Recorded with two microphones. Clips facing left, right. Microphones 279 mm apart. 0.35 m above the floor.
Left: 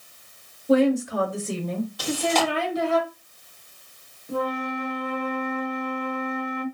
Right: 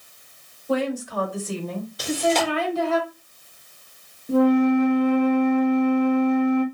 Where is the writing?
I don't hear writing.